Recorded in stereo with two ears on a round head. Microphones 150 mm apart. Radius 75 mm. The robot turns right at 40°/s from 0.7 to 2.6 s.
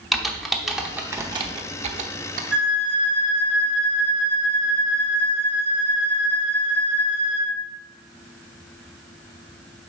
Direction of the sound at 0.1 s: Centre (ahead or behind).